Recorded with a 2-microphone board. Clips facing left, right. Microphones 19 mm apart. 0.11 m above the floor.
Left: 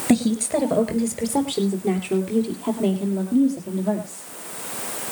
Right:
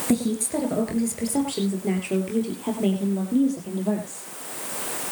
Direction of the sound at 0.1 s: 25° left (ahead or behind).